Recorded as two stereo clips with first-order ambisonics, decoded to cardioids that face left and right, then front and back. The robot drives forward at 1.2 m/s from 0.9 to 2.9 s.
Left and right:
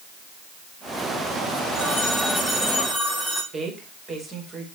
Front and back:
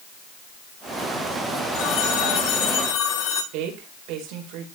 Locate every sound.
1.7 s a phone ringing: straight ahead, 8 m
3.5 s a woman speaking: 155° right, 5 m